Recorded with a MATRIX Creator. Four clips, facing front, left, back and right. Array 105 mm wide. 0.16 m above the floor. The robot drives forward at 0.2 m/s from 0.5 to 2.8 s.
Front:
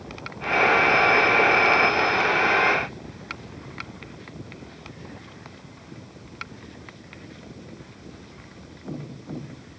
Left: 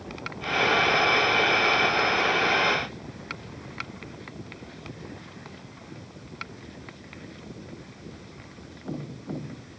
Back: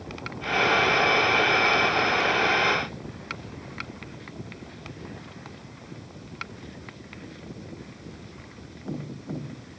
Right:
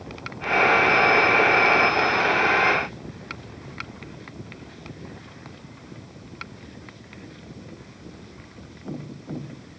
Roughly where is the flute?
I don't hear a flute.